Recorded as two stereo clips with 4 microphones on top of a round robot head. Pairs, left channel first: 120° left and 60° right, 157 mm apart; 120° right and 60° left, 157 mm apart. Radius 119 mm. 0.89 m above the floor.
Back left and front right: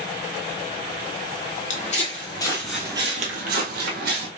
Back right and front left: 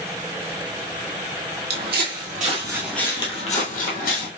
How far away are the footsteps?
About 1.4 m.